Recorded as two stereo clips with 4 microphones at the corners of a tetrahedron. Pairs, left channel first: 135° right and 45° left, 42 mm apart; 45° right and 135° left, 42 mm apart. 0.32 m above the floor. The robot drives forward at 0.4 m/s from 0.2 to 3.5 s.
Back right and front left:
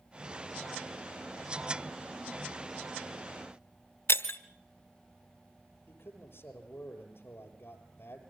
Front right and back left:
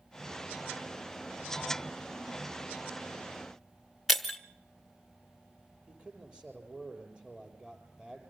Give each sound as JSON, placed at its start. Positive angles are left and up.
{"t": 4.1, "sound": "breaking glass", "azimuth_deg": -140, "distance_m": 1.4}
{"t": 5.9, "sound": "a man speaking", "azimuth_deg": -160, "distance_m": 7.5}